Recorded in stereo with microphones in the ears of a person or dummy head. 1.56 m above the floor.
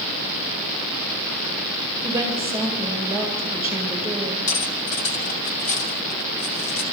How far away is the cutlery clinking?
About 2.5 m.